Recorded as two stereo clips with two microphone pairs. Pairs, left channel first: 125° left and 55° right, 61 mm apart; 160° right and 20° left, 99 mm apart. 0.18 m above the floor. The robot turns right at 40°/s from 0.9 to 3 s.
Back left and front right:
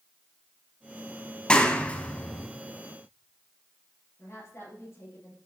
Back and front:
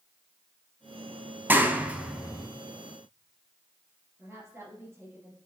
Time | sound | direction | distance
1.5 | a clap | 70° left | 0.9 m
4.2 | a woman speaking | 85° left | 3 m